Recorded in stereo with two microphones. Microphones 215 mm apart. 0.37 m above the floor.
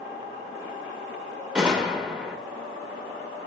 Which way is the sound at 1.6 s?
5° right (ahead or behind).